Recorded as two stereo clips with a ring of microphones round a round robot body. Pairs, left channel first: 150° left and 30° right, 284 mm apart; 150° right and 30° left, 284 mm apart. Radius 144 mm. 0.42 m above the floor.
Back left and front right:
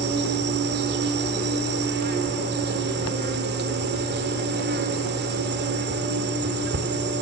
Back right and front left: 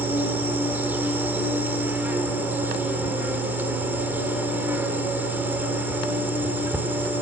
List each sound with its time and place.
0.0 s an insect: 50° right, 1.7 m